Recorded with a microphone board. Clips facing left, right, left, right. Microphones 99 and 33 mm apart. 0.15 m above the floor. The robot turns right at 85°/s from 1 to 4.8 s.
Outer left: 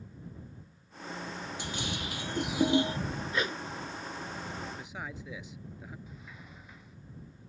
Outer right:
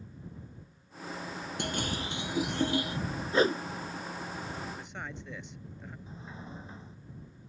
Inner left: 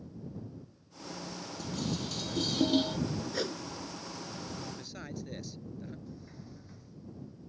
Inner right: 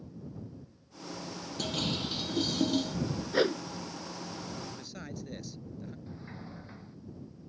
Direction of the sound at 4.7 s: 5° right (ahead or behind).